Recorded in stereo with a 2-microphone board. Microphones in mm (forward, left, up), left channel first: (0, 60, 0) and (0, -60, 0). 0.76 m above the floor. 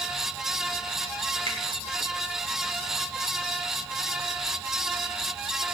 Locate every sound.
1.5 s a finger snap: 60° right (ahead or behind), 3.5 m